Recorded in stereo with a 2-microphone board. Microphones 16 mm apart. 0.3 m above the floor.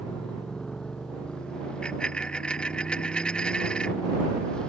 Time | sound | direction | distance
0.0 | a motorcycle | 65° left (ahead or behind) | ?
1.8 | a dropped coin | 80° left | ?